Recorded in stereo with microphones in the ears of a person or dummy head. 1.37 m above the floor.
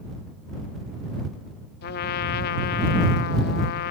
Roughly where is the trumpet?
Left.